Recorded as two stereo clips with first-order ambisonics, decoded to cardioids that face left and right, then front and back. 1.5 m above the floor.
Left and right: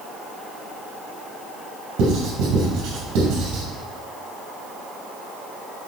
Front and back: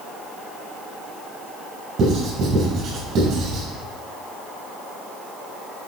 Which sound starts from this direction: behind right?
Writing, at 2.0 s.